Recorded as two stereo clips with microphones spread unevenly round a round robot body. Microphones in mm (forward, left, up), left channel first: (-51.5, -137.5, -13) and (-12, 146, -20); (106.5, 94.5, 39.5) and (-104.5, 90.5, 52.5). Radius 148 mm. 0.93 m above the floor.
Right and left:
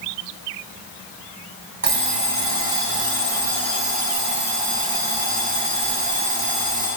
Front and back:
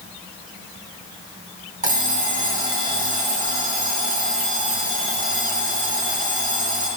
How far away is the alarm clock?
About 3 m.